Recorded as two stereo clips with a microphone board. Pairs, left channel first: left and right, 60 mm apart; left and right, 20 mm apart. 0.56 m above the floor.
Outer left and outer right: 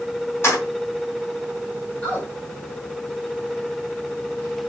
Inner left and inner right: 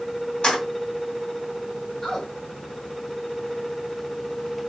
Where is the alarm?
No alarm in this recording.